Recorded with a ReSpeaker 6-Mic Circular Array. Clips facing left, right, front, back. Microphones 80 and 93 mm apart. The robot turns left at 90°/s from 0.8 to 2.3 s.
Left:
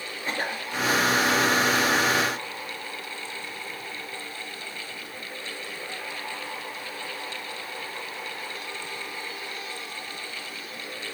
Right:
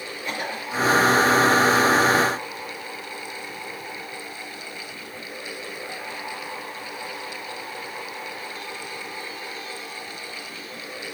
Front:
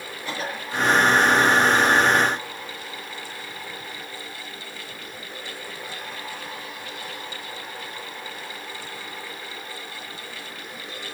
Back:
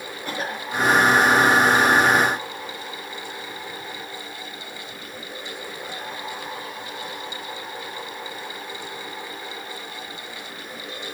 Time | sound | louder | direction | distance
0.2 | a cough | even, back 1 dB | 145° left | 5 m